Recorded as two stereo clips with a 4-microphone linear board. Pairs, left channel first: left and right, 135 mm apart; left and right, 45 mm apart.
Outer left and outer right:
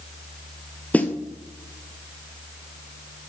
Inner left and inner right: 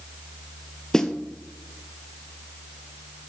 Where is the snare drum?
10° left (ahead or behind), 0.9 m.